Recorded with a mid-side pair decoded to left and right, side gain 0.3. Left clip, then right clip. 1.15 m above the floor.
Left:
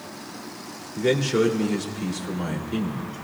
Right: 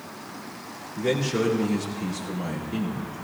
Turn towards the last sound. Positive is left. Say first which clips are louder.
# left 4 dB
turn(degrees=55)